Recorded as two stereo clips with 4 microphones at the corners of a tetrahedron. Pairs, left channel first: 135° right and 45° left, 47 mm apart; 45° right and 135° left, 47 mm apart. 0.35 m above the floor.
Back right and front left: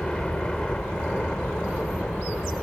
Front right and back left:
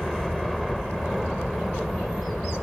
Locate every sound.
0.0 s a helicopter: 135° right